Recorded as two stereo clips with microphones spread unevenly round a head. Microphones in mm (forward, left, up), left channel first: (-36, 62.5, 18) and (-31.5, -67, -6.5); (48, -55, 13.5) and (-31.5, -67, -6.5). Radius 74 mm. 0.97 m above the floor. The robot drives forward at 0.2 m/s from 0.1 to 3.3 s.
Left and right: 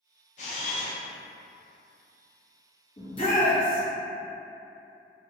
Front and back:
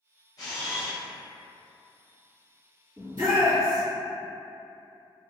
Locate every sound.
0.4 s a camera shutter: 60° left, 0.5 m; by 1.0 s 75° left, 0.5 m
3.0 s a shout: 140° left, 1.1 m; by 3.8 s 145° left, 1.1 m